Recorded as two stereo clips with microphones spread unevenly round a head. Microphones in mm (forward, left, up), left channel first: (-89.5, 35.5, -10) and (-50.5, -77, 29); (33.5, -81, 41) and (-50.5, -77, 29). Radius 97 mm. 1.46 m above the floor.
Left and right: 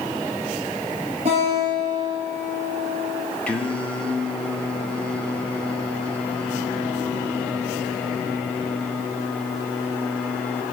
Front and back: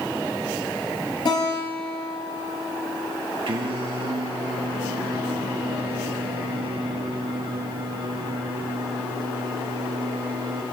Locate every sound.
1.2 s a guitar: 25° right, 4.5 m
3.5 s singing: 165° right, 1.0 m